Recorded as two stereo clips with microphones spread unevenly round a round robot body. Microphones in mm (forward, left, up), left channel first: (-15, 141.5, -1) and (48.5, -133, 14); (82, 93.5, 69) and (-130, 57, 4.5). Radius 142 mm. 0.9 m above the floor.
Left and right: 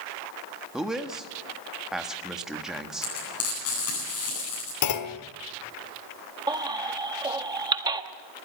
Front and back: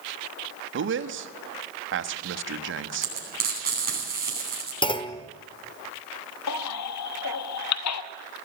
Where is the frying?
145° left, 10 m.